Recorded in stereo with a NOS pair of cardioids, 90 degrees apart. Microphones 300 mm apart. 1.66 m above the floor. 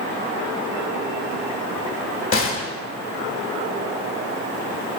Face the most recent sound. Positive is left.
turn(degrees=45)